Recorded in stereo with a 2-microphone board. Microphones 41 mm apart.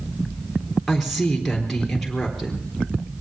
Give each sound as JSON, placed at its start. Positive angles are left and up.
{"t": 0.9, "sound": "a woman speaking", "side_deg": 5, "distance_m": 4.0}